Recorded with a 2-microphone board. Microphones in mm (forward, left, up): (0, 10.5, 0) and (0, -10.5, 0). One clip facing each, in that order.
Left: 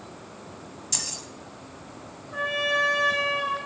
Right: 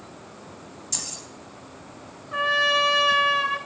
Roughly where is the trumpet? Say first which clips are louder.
Right 4 dB; right.